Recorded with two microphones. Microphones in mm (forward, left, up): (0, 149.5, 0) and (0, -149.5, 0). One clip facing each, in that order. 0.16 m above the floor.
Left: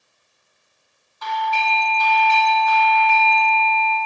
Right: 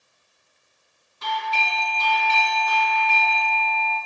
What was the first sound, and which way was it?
A doorbell, 25° right (ahead or behind).